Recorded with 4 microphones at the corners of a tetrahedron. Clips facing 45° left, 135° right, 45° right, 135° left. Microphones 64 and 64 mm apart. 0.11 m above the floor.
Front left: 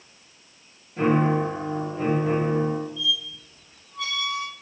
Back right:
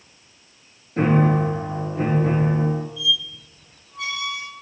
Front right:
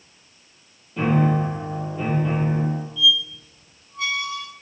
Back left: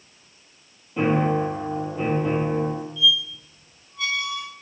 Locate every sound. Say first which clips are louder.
1.0 s a piano: back right 2 dB, even; 155° right, 0.6 m
3.0 s a squeak: back right 3 dB, front right 2 dB; 135° right, 1.8 m